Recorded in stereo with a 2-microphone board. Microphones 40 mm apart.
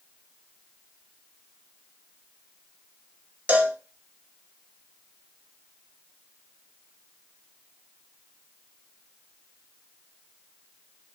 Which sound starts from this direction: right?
A cowbell, at 3.5 s.